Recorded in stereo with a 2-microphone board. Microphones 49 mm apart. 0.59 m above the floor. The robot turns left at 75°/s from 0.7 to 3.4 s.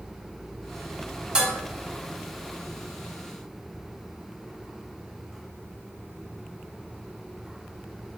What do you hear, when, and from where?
1.4 s dishes clattering: 20° right (ahead or behind), 1.2 m; by 1.5 s 10° right (ahead or behind), 1.2 m